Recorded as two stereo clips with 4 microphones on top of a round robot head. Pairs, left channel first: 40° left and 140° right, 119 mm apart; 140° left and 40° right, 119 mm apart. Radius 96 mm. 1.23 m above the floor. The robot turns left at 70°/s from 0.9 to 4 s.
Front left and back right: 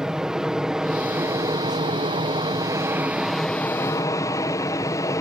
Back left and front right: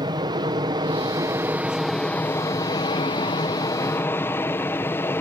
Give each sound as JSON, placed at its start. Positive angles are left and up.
{"t": 0.0, "sound": "an aircraft", "azimuth_deg": -60}